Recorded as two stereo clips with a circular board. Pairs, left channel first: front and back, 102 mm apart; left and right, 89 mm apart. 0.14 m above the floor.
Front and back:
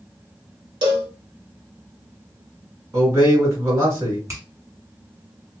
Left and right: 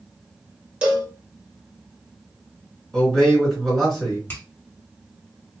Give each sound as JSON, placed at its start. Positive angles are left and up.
{"t": 0.8, "sound": "a cowbell", "azimuth_deg": -160, "distance_m": 1.0}
{"t": 2.9, "sound": "a man speaking", "azimuth_deg": 170, "distance_m": 1.8}
{"t": 4.3, "sound": "a finger snap", "azimuth_deg": 135, "distance_m": 1.1}